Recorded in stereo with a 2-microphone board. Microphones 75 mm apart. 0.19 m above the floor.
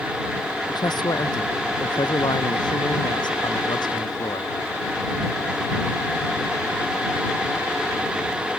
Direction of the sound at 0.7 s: 75° left (ahead or behind).